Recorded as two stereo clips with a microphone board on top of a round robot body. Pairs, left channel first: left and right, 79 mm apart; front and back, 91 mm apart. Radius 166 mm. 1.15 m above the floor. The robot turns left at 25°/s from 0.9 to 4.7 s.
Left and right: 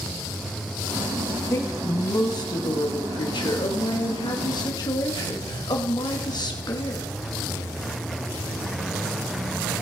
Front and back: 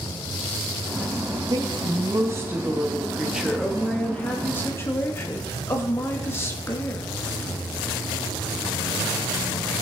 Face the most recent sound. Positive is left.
turn(degrees=60)